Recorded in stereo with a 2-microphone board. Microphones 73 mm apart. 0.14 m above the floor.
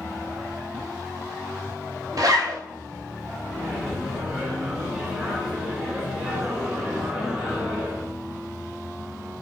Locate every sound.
2.2 s a zipper: 60° right (ahead or behind), 0.6 m
3.5 s a microwave: centre (ahead or behind), 1.4 m